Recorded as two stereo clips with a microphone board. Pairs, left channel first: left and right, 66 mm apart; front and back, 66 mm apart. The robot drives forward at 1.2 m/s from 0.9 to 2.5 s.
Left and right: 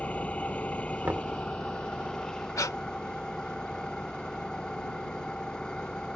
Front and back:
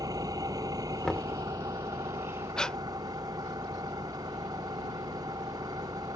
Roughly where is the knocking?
Right.